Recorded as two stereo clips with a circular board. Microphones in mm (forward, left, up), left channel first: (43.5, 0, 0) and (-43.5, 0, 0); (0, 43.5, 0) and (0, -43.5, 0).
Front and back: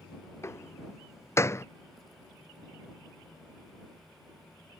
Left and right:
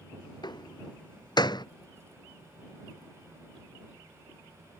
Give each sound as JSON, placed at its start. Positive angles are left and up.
{"t": 0.4, "sound": "a door slam", "azimuth_deg": 60}